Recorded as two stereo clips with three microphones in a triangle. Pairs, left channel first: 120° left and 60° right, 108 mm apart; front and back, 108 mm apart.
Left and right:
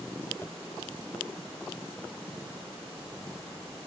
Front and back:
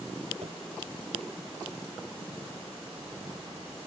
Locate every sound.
0.4 s tapping: 175° right